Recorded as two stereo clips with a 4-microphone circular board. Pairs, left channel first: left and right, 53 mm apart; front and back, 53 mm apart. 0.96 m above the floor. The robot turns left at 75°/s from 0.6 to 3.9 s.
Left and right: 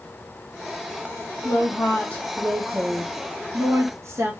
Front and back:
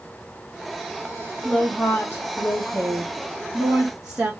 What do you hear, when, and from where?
1.4 s a woman speaking: 80° left, 1.6 m; by 4.3 s 105° right, 1.6 m